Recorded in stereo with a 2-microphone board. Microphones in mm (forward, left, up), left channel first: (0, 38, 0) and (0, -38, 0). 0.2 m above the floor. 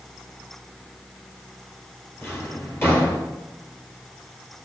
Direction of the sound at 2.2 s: 30° left (ahead or behind).